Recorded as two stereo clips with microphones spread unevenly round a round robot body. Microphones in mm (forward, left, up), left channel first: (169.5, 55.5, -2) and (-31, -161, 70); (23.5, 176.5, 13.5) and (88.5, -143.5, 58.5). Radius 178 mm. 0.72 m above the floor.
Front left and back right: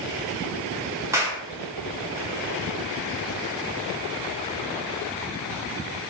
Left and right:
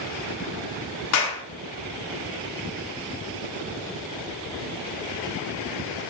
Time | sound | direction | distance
1.1 | a clap | 140° left | 1.3 m